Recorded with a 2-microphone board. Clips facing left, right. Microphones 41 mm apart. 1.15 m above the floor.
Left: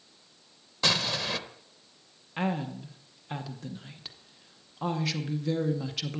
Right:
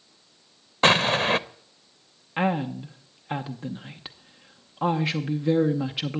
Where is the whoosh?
I don't hear a whoosh.